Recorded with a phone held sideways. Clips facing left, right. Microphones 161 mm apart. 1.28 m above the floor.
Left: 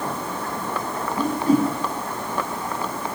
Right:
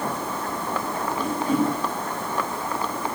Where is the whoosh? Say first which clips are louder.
Left 4 dB; 35° left (ahead or behind), 8.5 m.